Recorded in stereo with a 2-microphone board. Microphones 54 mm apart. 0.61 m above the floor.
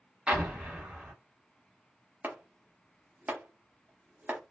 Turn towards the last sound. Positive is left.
turn(degrees=-35)  # may be behind; listen again after turning